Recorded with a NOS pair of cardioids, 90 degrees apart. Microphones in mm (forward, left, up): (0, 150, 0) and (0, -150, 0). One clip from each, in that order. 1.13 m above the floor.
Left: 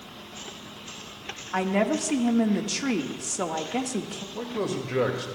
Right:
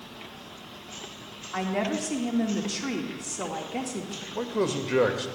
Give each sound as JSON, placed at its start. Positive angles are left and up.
{"t": 1.5, "sound": "a woman speaking", "azimuth_deg": 30, "distance_m": 1.7}
{"t": 4.3, "sound": "a man speaking", "azimuth_deg": -25, "distance_m": 2.0}